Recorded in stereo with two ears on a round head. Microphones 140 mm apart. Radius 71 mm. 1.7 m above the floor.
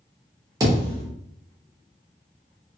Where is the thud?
25° right (ahead or behind), 1.0 m.